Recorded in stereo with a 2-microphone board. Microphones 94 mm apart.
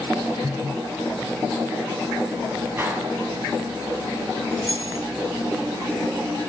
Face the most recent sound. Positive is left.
turn(degrees=-45)  # may be behind; listen again after turning